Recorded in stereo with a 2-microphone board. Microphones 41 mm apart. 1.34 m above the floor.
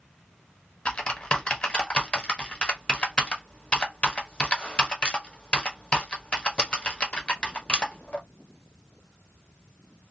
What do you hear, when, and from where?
0.8 s typing on a keyboard: 25° left (ahead or behind), 0.7 m